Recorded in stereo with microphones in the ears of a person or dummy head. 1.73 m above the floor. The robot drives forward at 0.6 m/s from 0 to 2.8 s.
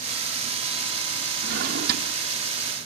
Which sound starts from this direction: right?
A drawer, at 1.4 s.